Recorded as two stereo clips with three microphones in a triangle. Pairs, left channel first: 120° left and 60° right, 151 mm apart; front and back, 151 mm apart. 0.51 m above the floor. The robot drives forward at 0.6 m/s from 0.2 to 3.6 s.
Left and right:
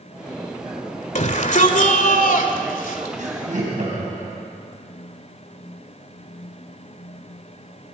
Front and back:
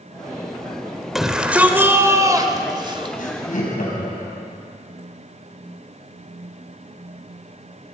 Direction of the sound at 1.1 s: 90° left.